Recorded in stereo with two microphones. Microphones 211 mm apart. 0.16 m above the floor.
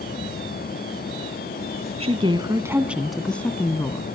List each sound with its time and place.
2.0 s a woman speaking: 30° right (ahead or behind), 1.2 m; by 4.1 s 20° left (ahead or behind), 1.6 m